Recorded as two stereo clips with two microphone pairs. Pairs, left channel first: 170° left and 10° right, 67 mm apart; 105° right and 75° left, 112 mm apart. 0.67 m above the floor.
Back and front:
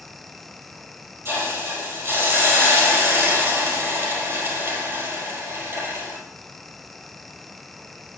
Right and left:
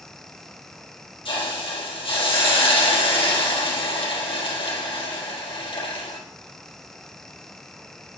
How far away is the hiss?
About 4 m.